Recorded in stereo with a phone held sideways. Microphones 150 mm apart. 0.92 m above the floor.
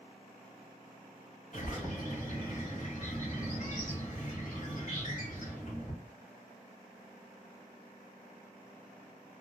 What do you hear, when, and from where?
1.5 s a bird: 60° left (ahead or behind), 1.5 m